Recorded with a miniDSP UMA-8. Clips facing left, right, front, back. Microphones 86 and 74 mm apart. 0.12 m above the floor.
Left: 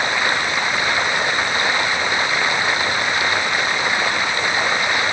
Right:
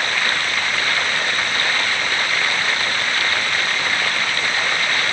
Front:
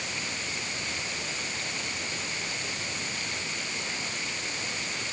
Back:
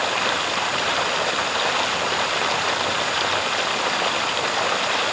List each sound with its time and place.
0.0 s running water: 165° left